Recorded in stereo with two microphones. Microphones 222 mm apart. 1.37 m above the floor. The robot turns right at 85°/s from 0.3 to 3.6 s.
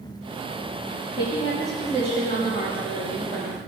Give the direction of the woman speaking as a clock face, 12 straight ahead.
8 o'clock.